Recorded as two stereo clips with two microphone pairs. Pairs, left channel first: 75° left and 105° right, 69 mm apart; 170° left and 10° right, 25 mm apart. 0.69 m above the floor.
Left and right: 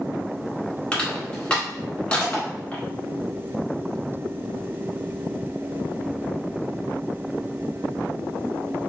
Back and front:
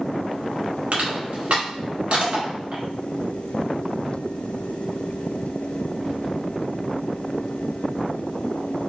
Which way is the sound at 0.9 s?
5° left.